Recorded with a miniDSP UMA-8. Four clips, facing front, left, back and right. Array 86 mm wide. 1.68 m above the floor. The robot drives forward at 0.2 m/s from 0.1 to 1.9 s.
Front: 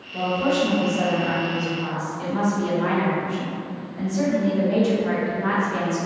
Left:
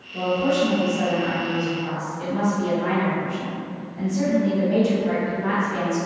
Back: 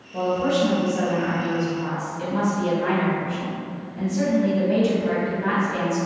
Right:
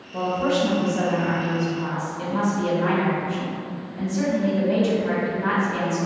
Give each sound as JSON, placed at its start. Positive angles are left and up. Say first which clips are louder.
{"t": 0.1, "sound": "a woman speaking", "louder": "left 1 dB, even", "azimuth_deg": -120, "distance_m": 1.5}